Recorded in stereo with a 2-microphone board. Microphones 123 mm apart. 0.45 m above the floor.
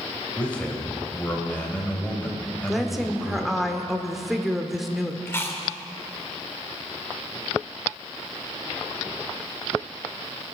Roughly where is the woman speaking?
Centre.